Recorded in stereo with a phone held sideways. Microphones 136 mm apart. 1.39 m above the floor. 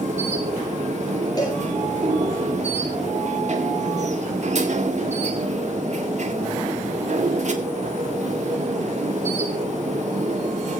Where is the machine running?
55° right (ahead or behind), 1.9 m.